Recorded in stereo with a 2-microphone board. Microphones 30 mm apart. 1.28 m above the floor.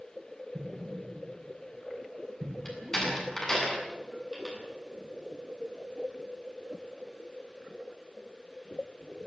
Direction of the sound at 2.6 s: 20° left (ahead or behind).